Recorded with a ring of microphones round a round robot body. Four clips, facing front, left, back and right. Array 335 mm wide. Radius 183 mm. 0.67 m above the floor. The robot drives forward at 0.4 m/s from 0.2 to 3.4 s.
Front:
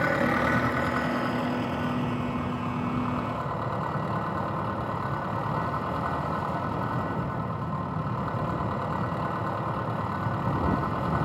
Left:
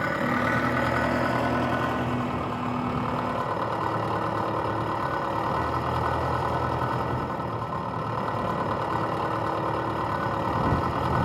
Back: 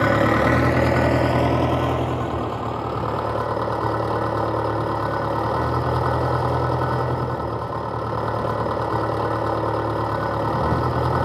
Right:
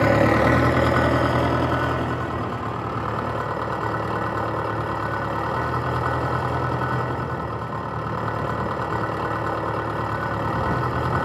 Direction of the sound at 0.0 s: 130° right.